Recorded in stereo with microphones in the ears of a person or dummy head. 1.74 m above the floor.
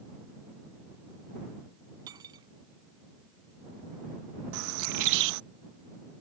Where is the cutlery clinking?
25° right (ahead or behind).